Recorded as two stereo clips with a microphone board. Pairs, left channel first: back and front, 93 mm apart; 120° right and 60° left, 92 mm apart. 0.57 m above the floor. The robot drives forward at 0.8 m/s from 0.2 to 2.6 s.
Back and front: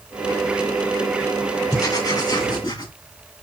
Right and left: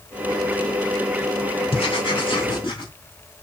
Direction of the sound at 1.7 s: 130° right.